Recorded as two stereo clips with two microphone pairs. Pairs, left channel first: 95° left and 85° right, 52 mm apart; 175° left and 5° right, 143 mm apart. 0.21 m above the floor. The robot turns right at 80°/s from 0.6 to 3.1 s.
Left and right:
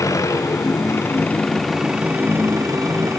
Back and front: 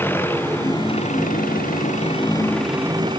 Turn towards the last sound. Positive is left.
turn(degrees=-60)